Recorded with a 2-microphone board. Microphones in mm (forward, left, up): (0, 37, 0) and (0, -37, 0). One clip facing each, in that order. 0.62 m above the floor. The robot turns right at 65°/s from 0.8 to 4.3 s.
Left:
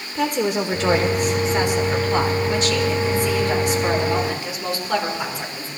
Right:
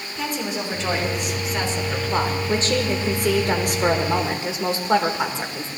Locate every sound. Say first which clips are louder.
0.1 s a woman speaking: left 7 dB; 105° left, 2.5 m; by 5.7 s 30° right, 2.5 m